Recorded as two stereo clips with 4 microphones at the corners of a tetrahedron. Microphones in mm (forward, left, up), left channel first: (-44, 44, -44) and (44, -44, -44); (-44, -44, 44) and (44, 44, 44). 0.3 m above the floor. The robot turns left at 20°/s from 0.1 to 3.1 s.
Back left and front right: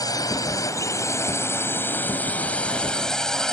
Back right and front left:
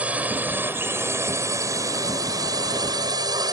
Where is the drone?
115° left; by 3.5 s 55° left.